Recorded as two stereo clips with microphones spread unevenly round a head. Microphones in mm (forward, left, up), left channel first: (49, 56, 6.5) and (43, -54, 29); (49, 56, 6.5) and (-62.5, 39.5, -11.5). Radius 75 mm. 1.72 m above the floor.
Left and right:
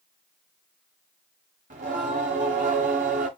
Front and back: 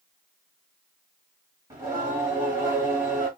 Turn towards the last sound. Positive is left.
turn(degrees=-100)